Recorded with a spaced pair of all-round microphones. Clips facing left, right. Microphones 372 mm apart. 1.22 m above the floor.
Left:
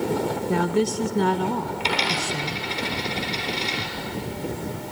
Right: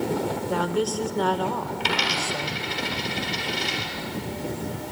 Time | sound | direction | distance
0.5 | a woman speaking | 35° left (ahead or behind) | 1.2 m
1.8 | a dropped coin | 25° right (ahead or behind) | 3 m